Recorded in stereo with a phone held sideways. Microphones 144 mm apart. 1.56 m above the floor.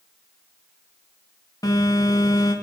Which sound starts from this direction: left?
A phone buzzing, at 1.6 s.